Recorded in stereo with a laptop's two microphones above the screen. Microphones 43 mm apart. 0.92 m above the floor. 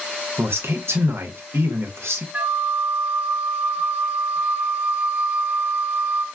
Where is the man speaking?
70° right (ahead or behind), 0.5 m.